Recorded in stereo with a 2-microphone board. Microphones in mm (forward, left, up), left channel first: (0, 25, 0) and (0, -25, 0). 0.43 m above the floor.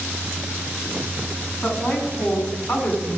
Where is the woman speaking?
10° left (ahead or behind), 3.5 m; by 3.2 s 30° left (ahead or behind), 3.5 m.